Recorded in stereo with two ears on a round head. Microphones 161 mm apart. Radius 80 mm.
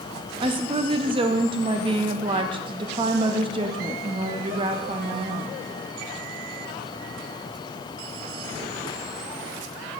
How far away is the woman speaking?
About 0.6 m.